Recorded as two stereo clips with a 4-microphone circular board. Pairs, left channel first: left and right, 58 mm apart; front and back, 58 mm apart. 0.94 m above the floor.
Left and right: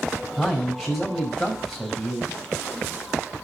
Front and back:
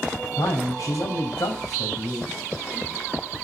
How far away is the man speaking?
About 5 m.